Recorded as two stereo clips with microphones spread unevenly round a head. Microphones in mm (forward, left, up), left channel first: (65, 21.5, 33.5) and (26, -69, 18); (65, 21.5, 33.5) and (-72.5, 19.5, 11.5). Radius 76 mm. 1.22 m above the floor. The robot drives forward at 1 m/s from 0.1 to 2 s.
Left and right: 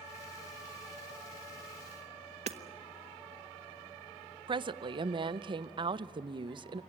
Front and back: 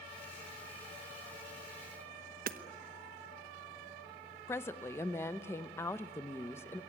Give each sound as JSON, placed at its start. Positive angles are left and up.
{"t": 2.5, "sound": "hammering", "azimuth_deg": -150, "distance_m": 1.1}
{"t": 4.5, "sound": "a woman speaking", "azimuth_deg": -75, "distance_m": 0.8}